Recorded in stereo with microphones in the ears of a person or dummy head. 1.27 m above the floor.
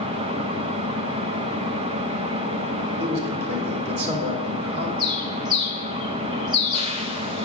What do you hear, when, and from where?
0.0 s an engine running: 30° right (ahead or behind), 0.7 m
3.0 s a man speaking: 55° right (ahead or behind), 2.5 m
5.0 s a bird: 20° right (ahead or behind), 0.8 m